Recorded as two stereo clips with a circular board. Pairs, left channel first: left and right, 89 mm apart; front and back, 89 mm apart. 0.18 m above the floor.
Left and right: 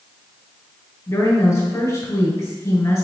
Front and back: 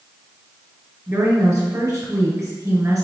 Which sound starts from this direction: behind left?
A woman speaking, at 1.1 s.